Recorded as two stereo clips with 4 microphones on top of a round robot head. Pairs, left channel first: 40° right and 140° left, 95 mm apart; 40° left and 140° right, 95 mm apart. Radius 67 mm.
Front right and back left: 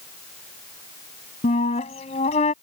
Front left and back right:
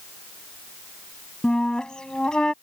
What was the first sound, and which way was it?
A flute, 45° right.